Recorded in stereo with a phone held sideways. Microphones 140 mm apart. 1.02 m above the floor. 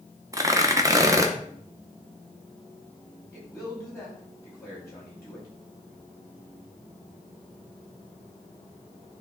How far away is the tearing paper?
About 0.9 m.